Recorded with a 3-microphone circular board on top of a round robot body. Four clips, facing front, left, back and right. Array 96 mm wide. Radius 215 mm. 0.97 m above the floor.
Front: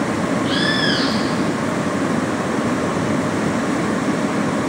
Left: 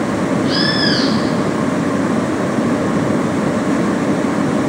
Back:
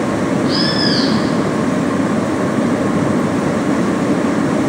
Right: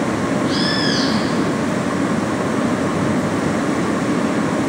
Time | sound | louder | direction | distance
0.5 | a bird | left 2 dB, back 3 dB | 50° left | 1.2 m